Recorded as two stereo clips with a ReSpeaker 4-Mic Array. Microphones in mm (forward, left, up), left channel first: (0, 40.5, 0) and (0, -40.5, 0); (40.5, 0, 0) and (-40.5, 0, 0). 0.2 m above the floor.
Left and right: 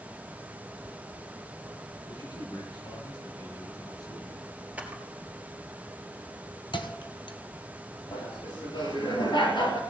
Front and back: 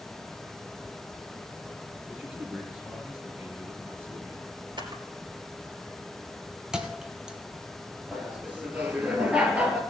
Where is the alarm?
No alarm in this recording.